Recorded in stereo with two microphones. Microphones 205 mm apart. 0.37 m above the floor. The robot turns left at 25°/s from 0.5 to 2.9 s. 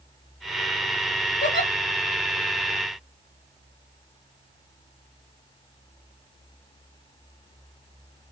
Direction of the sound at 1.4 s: 60° left (ahead or behind).